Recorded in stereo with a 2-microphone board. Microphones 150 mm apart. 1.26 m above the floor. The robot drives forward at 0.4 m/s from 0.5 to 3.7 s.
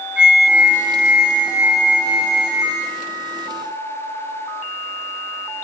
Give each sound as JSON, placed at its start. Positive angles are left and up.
{"t": 0.2, "sound": "a flute", "side_deg": -5, "distance_m": 1.3}